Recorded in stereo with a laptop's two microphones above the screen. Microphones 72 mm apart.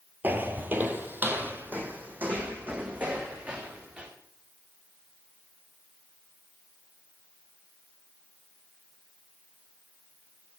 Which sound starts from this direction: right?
Footsteps, at 0.2 s.